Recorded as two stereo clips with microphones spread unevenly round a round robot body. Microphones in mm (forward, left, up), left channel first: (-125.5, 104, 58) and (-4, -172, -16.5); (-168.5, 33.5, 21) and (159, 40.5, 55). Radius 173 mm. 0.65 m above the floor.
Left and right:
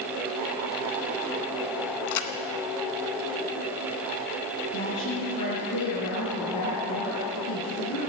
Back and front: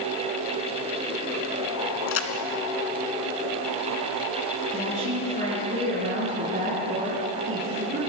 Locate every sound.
2.1 s a crack: 130° left, 1.9 m
4.7 s a woman speaking: 70° left, 8 m